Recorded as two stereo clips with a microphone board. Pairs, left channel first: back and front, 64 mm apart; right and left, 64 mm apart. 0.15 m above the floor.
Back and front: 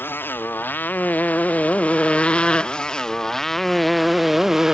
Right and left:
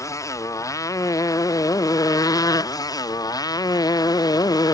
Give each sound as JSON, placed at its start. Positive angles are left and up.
{"t": 0.0, "sound": "a motorcycle", "azimuth_deg": -125}